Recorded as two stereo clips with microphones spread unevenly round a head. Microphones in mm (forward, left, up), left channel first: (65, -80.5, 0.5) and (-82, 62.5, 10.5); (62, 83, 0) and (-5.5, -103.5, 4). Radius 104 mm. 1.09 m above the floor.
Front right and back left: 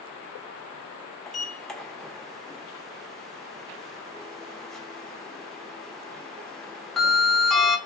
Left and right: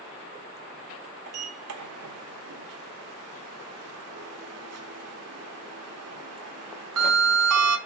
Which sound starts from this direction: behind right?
A sliding door, at 1.3 s.